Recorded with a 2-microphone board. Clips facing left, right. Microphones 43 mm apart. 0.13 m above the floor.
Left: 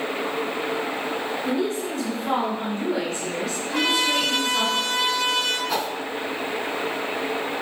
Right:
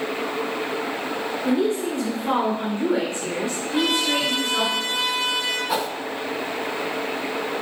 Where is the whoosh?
5° right (ahead or behind), 0.6 m.